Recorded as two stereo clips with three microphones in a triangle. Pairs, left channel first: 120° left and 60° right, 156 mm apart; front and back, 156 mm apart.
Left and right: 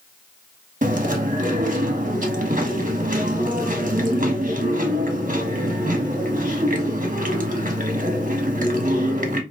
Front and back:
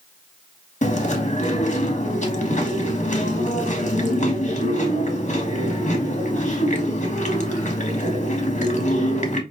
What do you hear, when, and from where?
0.8 s chewing: 35° right, 1.3 m